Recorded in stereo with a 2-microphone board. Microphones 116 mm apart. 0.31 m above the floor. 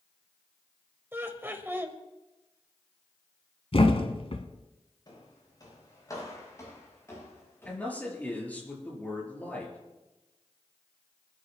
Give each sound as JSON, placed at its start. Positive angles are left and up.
{"t": 1.1, "sound": "laughter", "side_deg": -20, "distance_m": 1.1}
{"t": 3.7, "sound": "a thud", "side_deg": 55, "distance_m": 1.3}
{"t": 5.1, "sound": "footsteps", "side_deg": 40, "distance_m": 6.0}
{"t": 7.7, "sound": "a man speaking", "side_deg": 15, "distance_m": 5.5}